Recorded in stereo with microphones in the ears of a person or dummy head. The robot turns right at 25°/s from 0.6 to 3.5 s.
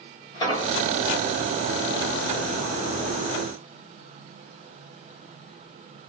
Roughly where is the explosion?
Left.